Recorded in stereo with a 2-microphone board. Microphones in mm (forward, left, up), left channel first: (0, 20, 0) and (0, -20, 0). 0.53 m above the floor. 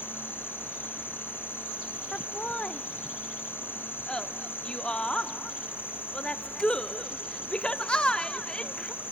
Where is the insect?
70° left (ahead or behind), 2.5 m.